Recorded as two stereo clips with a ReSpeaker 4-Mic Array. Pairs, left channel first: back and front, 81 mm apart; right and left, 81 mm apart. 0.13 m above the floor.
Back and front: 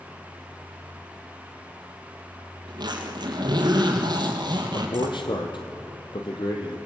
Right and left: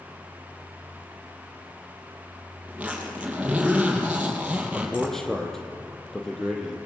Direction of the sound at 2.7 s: 15° left.